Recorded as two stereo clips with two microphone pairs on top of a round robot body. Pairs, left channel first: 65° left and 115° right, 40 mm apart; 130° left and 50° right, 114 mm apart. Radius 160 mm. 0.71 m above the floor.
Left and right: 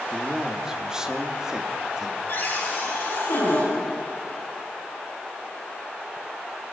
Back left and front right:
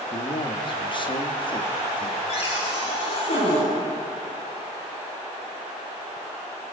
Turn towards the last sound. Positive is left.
turn(degrees=100)